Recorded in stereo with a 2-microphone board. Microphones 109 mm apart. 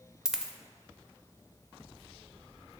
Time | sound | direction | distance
0.2 | a dropped coin | 5° right (ahead or behind) | 0.5 m